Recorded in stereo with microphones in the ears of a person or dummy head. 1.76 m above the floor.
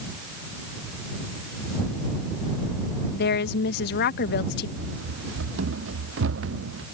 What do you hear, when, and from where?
3.1 s a woman speaking: 55° left (ahead or behind)
4.8 s running footsteps: 85° right